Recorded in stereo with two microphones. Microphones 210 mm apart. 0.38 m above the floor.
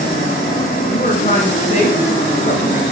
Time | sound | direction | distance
0.9 | a woman speaking | 40° left (ahead or behind) | 1.8 m